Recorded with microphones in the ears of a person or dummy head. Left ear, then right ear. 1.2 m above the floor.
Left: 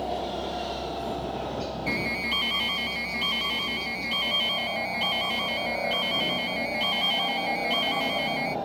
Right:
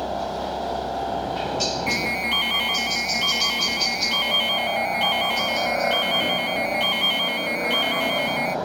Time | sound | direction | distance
0.0 | a helicopter | 60° right (ahead or behind) | ?
1.9 | an alarm | 10° right (ahead or behind) | ?